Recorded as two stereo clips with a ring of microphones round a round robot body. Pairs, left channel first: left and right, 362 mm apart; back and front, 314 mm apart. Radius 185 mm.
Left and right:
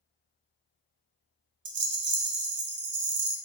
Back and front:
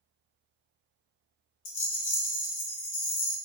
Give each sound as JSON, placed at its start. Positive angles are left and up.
{"t": 1.6, "sound": "a rattle", "azimuth_deg": -130, "distance_m": 0.6}